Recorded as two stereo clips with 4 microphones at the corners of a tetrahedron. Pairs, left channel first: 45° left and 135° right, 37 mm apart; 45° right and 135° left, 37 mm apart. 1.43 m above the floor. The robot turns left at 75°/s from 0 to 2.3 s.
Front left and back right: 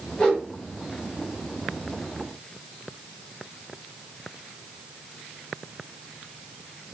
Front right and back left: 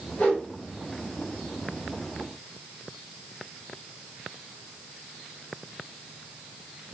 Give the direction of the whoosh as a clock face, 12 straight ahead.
12 o'clock.